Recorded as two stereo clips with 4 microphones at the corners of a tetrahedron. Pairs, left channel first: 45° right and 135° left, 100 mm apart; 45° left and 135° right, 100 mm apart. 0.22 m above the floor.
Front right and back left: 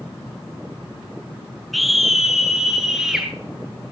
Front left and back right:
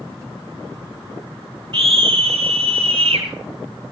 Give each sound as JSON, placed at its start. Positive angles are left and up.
{"t": 1.7, "sound": "a scream", "azimuth_deg": -135, "distance_m": 1.8}